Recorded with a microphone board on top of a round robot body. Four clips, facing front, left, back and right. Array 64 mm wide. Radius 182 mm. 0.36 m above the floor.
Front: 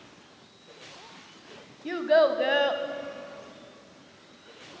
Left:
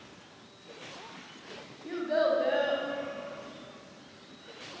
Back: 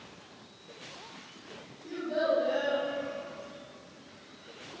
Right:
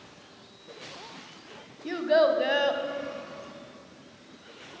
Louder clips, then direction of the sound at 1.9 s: Right 5 dB, front 8 dB; 25° right.